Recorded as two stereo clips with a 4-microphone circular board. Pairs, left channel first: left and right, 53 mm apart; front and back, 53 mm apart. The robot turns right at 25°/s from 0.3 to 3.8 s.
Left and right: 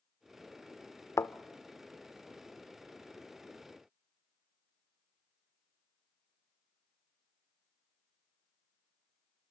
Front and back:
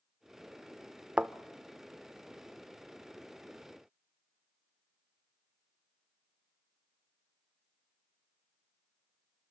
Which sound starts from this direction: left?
A thud, at 1.2 s.